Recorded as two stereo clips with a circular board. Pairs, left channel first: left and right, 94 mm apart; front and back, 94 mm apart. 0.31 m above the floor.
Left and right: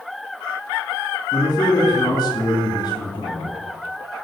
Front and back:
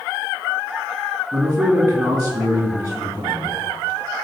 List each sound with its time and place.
1.3 s a man speaking: 115° left, 3 m